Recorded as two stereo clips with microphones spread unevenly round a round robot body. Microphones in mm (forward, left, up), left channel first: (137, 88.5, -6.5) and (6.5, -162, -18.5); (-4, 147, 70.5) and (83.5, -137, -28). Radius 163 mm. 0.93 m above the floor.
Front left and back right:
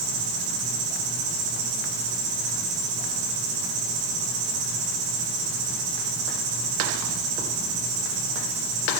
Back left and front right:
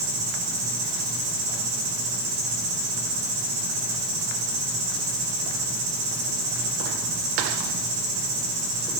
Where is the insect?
145° right, 4.5 m.